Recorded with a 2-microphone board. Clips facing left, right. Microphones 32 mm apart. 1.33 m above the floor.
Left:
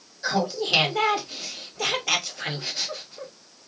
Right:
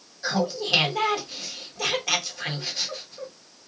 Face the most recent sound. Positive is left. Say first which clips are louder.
# left 1 dB
turn(degrees=0)  # may be behind; listen again after turning